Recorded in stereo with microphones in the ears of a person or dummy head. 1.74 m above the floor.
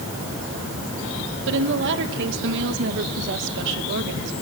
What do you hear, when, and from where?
1.5 s a woman speaking: 65° right (ahead or behind), 2.5 m